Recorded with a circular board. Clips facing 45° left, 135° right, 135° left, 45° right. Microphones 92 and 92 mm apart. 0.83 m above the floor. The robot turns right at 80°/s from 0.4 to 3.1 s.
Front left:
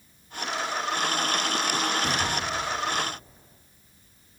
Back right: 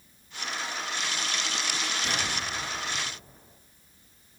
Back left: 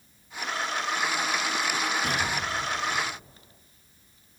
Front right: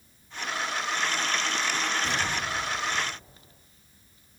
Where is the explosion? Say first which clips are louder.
Front left 5 dB, back left 1 dB; 105° left, 5.5 m; by 3.5 s 170° right, 5.5 m.